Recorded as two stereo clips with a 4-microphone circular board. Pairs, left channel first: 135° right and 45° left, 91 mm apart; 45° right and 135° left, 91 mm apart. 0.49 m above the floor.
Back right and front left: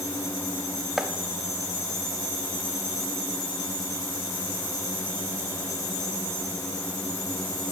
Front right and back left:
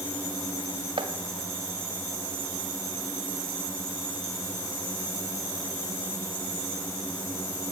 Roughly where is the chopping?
Behind left.